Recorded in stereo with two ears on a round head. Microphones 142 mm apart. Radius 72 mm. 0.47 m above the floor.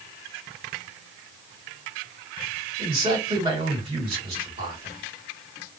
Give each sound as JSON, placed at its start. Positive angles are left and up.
{"t": 2.8, "sound": "a man speaking", "side_deg": -35, "distance_m": 2.0}